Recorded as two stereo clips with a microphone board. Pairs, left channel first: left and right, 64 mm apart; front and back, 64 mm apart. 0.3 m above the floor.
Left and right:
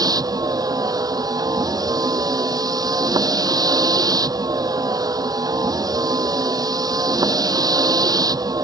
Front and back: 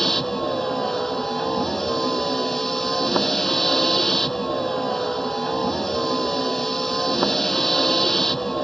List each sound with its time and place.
0.0 s a vehicle: 85° right